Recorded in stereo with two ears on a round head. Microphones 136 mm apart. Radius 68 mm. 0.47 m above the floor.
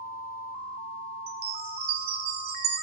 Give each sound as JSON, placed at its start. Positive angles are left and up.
{"t": 1.3, "sound": "a chime", "side_deg": -75, "distance_m": 5.0}